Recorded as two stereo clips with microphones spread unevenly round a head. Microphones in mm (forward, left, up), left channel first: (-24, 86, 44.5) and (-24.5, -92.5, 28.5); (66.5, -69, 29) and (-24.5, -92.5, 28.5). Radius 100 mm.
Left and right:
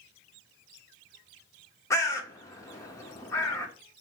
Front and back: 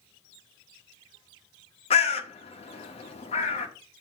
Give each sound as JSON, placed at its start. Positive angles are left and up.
{"t": 1.9, "sound": "a bird", "azimuth_deg": 15, "distance_m": 1.0}